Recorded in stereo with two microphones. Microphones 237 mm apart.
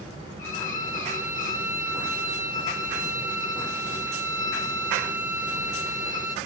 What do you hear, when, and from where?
0.4 s a violin: 35° left (ahead or behind), 1.3 m